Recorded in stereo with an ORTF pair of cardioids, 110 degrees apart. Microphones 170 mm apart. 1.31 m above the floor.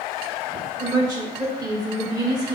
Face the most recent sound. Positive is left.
turn(degrees=-20)